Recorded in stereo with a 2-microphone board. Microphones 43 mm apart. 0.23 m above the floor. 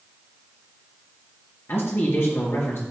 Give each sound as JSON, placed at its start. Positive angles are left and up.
{"t": 1.7, "sound": "a man speaking", "side_deg": 60, "distance_m": 3.5}